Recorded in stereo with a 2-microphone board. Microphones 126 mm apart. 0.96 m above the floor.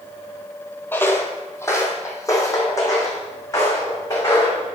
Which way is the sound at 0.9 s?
15° left (ahead or behind).